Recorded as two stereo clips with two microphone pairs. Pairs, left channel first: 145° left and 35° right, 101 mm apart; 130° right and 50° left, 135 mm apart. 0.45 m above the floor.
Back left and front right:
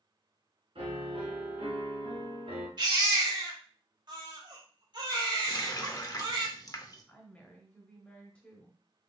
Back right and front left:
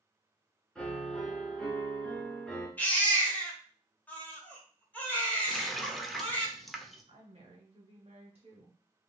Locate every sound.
0.8 s a piano: 45° right, 2 m
2.8 s a baby crying: 55° right, 1.5 m
5.5 s a running tap: 145° left, 0.6 m
7.1 s a woman speaking: 75° left, 1.9 m